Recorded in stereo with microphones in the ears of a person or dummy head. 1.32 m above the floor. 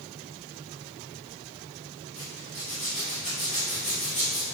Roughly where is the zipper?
Left.